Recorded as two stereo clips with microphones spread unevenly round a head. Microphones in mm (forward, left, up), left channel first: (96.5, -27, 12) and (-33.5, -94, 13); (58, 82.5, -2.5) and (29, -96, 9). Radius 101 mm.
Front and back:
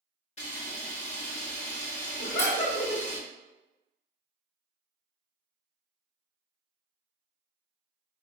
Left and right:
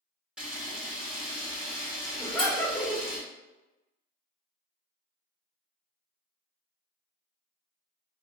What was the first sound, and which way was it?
A camera shutter, 15° right.